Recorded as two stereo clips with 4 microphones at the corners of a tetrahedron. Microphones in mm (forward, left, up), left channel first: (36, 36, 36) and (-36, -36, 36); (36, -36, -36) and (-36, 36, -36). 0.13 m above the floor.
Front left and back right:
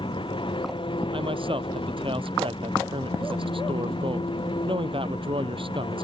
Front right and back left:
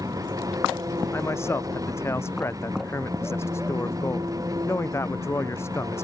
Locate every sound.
0.0 s an engine running: 80° left
1.1 s a man speaking: 110° right